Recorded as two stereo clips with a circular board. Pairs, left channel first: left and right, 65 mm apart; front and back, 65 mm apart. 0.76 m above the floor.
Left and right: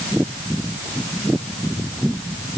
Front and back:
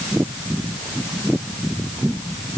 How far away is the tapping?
I don't hear tapping.